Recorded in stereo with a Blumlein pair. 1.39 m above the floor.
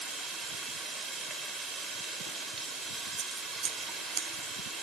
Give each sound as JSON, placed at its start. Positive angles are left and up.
{"t": 0.0, "sound": "running water", "azimuth_deg": -20, "distance_m": 3.0}
{"t": 3.2, "sound": "scissors", "azimuth_deg": -25, "distance_m": 0.8}